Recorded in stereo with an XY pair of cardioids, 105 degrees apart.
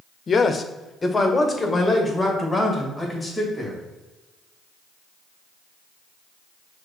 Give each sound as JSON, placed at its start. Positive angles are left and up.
{"t": 0.3, "sound": "a man speaking", "azimuth_deg": 40, "distance_m": 0.6}